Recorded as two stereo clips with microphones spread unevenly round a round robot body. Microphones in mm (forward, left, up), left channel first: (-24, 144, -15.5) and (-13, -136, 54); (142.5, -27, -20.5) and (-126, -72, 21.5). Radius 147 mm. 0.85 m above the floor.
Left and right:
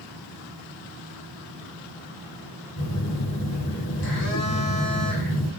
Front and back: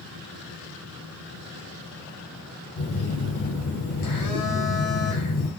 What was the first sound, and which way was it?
A phone buzzing, 45° left.